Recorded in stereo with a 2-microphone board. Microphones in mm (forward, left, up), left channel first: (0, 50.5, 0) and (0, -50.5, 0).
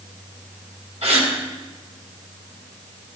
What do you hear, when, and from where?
1.0 s a gasp: 80° right, 1.8 m